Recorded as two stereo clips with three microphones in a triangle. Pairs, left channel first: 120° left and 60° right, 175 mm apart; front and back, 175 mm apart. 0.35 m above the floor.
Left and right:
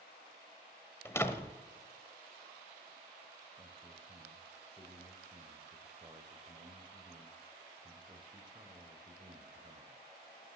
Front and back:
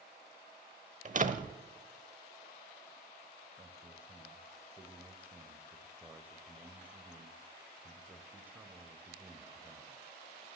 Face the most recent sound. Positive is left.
turn(degrees=-105)